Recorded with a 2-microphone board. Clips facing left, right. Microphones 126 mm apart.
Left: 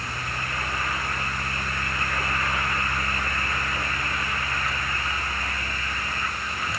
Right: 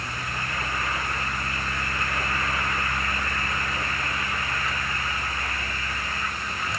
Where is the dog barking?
No dog barking in this recording.